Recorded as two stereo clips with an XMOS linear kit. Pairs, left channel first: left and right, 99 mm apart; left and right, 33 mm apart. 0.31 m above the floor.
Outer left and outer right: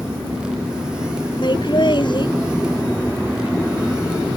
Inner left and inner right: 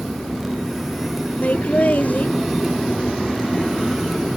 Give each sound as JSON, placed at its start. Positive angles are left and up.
{"t": 1.4, "sound": "laughter", "side_deg": 50}